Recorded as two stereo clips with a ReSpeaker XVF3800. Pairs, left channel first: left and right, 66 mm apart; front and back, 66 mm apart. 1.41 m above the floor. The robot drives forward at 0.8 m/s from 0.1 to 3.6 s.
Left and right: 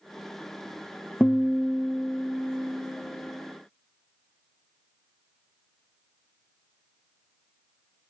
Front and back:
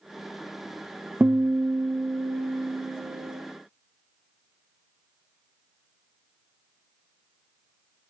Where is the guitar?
145° left, 1.0 m; by 3.4 s 170° left, 2.5 m.